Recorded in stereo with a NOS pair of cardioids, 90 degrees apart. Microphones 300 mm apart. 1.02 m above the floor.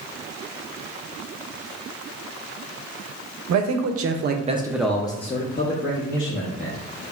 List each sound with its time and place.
3.5 s a man speaking: 70° right, 0.9 m; by 6.8 s 50° left, 1.6 m